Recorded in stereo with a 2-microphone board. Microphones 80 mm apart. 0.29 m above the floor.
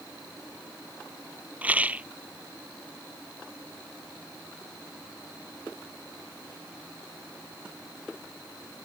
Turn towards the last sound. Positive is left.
turn(degrees=-20)  # may be behind; listen again after turning